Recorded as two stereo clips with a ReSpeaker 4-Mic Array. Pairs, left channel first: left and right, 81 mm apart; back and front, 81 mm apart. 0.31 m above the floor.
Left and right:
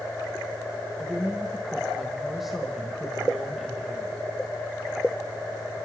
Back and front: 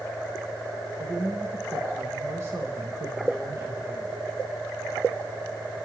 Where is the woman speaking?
5° right, 1.2 m.